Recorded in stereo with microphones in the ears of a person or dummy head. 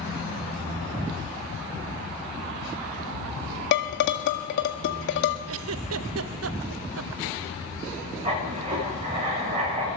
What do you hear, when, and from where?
3.7 s dishes clattering: 55° left (ahead or behind), 1.7 m
5.5 s a giggle: 90° right, 0.7 m
8.2 s writing: 35° right (ahead or behind), 6 m